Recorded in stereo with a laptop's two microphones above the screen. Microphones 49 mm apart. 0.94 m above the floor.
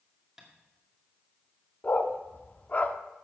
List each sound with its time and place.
0.4 s tapping: 15° right (ahead or behind), 2 m
1.8 s a dog barking: 35° left (ahead or behind), 0.7 m